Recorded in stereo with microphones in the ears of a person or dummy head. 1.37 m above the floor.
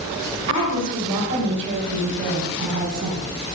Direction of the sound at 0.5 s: 70° right (ahead or behind).